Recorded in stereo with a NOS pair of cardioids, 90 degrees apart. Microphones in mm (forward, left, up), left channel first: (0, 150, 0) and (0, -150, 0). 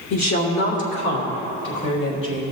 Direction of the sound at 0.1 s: 65° left.